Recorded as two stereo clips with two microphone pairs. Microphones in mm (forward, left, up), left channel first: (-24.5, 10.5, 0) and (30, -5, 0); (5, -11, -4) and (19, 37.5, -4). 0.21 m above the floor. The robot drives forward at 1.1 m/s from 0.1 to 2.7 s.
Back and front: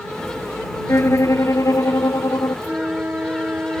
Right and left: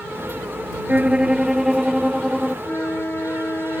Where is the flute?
70° right; by 3.8 s 75° right.